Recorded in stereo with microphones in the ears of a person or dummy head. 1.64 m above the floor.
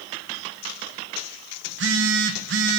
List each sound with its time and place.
1.7 s a phone buzzing: 65° right (ahead or behind), 2 m